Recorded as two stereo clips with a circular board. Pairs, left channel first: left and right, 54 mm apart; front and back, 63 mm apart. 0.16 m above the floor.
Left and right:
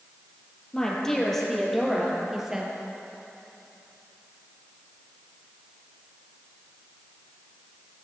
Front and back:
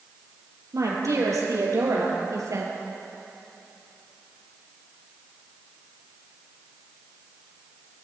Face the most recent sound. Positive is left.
turn(degrees=-160)